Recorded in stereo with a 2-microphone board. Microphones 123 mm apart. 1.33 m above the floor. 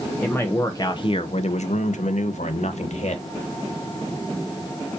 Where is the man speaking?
15° left (ahead or behind), 0.8 m; by 3.2 s 65° left (ahead or behind), 1.2 m.